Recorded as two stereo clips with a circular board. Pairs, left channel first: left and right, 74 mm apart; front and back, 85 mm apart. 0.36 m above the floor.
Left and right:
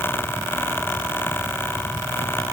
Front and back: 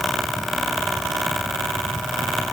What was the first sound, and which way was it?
Only background noise.